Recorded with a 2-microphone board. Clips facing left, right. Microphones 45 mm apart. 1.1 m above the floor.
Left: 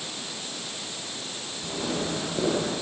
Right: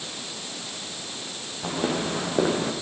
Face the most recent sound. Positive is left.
turn(degrees=-35)  # may be behind; listen again after turning